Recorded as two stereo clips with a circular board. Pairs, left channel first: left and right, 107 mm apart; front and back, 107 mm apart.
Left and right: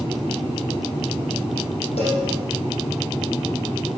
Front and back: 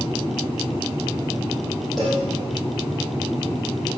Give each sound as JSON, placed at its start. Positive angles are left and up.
{"t": 2.0, "sound": "a cowbell", "azimuth_deg": 90, "distance_m": 5.0}